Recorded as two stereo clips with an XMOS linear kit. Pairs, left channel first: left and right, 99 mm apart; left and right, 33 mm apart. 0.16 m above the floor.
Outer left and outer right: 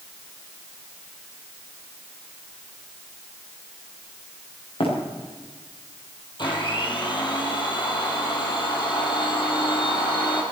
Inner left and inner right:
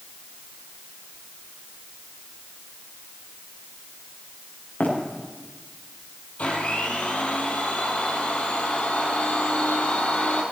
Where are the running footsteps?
65° left (ahead or behind), 8 m.